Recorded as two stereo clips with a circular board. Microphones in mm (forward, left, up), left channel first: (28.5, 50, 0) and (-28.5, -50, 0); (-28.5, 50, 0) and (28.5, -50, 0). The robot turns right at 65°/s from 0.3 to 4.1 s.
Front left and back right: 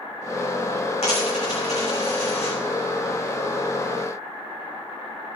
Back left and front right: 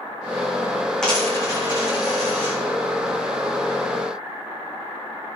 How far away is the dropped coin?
About 6 m.